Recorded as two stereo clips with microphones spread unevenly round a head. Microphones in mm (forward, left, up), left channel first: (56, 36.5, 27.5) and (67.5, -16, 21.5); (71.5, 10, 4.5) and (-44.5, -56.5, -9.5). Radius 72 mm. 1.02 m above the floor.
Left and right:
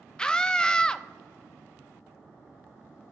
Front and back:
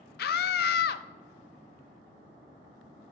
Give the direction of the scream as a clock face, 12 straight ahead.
11 o'clock.